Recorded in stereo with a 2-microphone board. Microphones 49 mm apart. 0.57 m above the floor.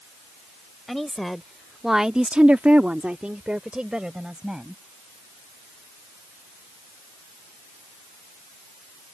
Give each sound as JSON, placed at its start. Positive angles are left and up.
{"t": 0.9, "sound": "a woman speaking", "side_deg": 5}